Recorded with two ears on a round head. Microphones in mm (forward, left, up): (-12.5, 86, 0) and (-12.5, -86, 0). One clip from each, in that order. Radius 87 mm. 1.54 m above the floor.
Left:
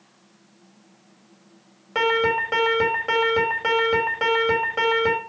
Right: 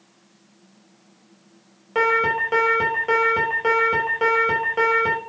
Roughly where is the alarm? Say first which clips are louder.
Right 1 dB; centre.